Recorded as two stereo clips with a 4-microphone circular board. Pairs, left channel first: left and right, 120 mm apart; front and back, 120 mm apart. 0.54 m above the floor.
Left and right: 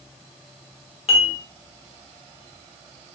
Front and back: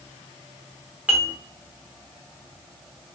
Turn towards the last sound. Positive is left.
turn(degrees=105)